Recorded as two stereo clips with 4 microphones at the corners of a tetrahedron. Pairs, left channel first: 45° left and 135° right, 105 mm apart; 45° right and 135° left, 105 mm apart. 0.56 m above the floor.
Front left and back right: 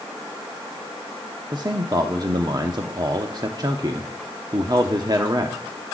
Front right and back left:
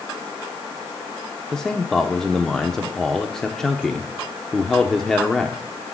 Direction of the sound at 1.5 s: 125° right.